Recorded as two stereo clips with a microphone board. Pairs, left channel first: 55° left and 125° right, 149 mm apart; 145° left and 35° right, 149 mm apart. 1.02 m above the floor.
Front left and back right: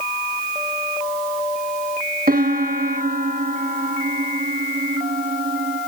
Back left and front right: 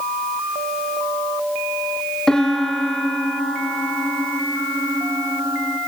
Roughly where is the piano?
Behind right.